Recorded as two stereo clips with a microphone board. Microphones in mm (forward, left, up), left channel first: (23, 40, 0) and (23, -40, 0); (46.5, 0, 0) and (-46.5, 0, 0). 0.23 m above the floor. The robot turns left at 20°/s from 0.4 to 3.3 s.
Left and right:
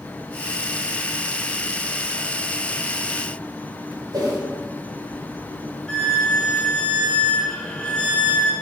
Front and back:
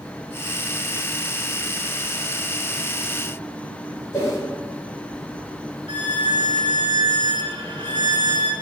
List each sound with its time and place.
4.1 s a whoosh: 60° right, 2.5 m
5.9 s a violin: 170° left, 0.7 m